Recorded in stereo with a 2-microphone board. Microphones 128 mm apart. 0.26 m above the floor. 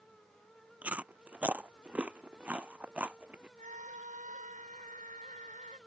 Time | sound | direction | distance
0.8 | chewing | 10° right (ahead or behind) | ?
3.6 | a scream | 70° right (ahead or behind) | ?